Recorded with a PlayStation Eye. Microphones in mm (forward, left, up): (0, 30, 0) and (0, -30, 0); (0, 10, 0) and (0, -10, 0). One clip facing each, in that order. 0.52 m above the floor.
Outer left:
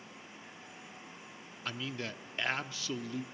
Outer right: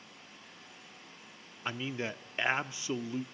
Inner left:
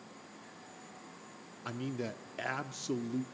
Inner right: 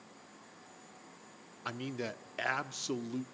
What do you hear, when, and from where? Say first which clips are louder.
1.6 s a man speaking: outer right 3 dB, even; 20° right (ahead or behind), 0.6 m